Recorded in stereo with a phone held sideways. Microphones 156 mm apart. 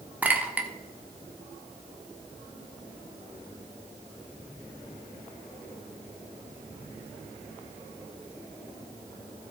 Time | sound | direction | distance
0.2 | a clink | 10° right (ahead or behind) | 1.3 m